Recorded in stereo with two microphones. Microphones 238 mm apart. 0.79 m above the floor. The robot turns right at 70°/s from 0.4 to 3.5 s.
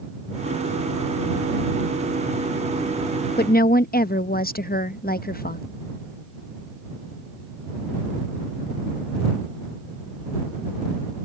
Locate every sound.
3.4 s a woman speaking: 40° left (ahead or behind)